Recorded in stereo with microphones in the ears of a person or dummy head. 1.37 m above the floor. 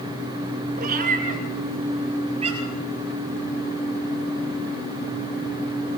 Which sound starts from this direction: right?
A cat meowing, at 0.8 s.